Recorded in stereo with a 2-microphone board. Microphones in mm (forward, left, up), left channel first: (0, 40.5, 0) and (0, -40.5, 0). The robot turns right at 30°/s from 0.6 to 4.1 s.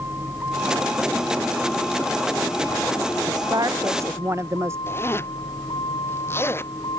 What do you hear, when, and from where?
0.0 s a vehicle: 30° right; by 7.0 s 75° left
3.3 s a woman speaking: 60° right (ahead or behind); by 4.8 s 35° right (ahead or behind)
4.9 s a zipper: 30° left (ahead or behind)